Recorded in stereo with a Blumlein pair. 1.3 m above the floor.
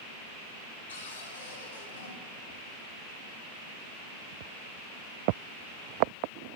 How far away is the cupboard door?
About 2.5 m.